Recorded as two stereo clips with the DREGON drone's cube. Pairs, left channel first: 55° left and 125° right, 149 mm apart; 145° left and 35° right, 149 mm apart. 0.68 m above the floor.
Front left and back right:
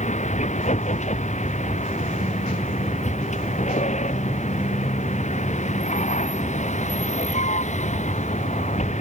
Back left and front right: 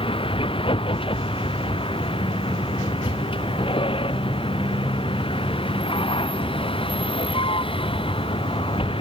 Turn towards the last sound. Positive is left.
turn(degrees=90)